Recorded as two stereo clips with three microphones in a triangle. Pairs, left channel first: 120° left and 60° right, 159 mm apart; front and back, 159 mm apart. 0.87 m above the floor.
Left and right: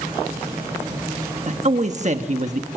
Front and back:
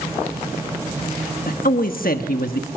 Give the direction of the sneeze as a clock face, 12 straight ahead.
I don't hear a sneeze.